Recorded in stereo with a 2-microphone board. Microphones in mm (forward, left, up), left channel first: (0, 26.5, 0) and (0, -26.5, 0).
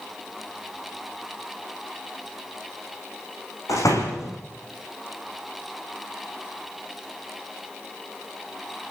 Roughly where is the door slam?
Left.